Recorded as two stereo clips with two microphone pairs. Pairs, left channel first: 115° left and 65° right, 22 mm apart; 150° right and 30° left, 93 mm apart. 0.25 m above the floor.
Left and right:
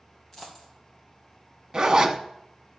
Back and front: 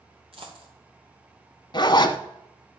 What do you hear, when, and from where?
0.3 s a dropped coin: 40° left, 3 m
1.7 s a zipper: 120° right, 0.7 m